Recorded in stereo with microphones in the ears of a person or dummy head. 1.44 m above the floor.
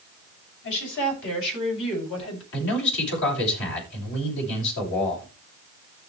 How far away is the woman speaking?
About 7 m.